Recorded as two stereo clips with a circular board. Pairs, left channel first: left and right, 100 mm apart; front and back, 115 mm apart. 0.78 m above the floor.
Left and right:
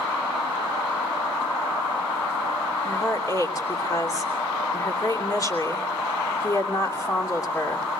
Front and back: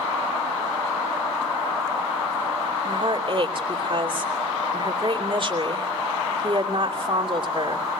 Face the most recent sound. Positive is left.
turn(degrees=145)